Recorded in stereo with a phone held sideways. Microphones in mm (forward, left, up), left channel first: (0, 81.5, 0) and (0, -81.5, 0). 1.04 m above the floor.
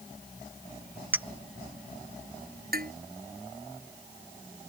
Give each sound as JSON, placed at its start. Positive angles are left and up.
{"t": 1.1, "sound": "a clink", "side_deg": -10}
{"t": 2.7, "sound": "dishes clattering", "side_deg": -65}